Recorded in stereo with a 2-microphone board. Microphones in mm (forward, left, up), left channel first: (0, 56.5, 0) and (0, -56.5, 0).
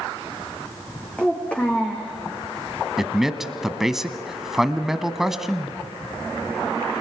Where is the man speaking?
5° right (ahead or behind), 1.2 m.